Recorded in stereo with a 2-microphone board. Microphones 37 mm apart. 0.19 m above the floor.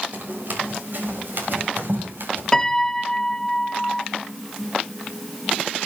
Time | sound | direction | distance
0.1 | running footsteps | 50° right (ahead or behind) | 5.5 m
2.5 | a piano | 15° left (ahead or behind) | 0.6 m